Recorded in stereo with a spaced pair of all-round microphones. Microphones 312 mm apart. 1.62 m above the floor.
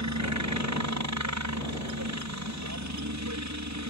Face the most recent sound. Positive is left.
turn(degrees=-65)  # may be behind; listen again after turning